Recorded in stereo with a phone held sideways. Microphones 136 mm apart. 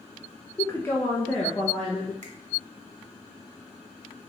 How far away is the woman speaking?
About 0.6 m.